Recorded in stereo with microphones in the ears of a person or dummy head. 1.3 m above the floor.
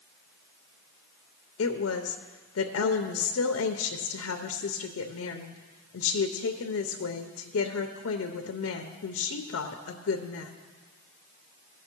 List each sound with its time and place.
1.6 s a woman speaking: 65° left (ahead or behind), 0.6 m